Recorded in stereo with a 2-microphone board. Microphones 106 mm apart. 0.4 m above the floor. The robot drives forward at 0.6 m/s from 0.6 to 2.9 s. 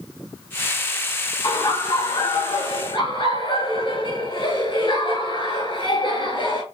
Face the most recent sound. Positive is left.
turn(degrees=55)  # may be behind; listen again after turning